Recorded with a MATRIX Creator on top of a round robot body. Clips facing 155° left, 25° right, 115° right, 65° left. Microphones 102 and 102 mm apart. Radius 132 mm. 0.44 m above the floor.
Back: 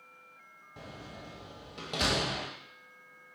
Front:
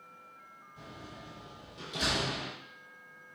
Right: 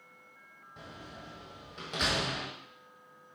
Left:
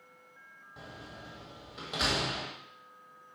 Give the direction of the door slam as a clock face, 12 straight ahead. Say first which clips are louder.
Back 2 dB, even; 7 o'clock.